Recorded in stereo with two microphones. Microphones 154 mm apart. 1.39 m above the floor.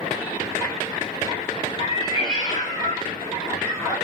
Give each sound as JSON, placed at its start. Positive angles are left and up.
{"t": 1.8, "sound": "a cat meowing", "side_deg": 40, "distance_m": 1.9}